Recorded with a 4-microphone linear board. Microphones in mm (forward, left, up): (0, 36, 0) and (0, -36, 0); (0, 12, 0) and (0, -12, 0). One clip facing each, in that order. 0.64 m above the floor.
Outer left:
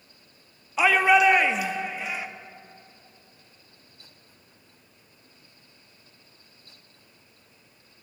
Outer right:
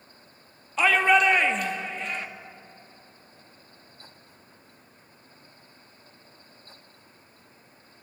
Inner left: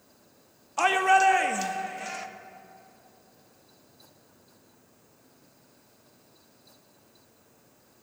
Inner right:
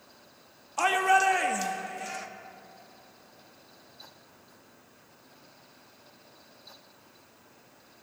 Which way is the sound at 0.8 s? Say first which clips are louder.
Outer left 1 dB, inner left 2 dB; 10° left (ahead or behind).